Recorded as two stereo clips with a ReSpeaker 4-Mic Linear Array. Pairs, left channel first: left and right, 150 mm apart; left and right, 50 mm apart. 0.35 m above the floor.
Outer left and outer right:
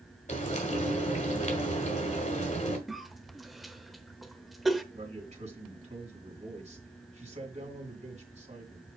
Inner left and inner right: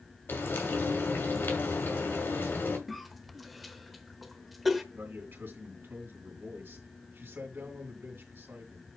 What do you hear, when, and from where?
0.3 s frying: 50° left (ahead or behind), 2.0 m
2.9 s a cough: centre (ahead or behind), 0.9 m
4.9 s a man speaking: 50° right (ahead or behind), 2.5 m